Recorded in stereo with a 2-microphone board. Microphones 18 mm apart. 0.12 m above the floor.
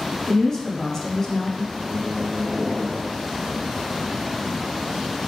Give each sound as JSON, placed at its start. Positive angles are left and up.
{"t": 0.3, "sound": "a woman speaking", "side_deg": 25, "distance_m": 1.2}
{"t": 1.7, "sound": "a microwave", "side_deg": -45, "distance_m": 1.4}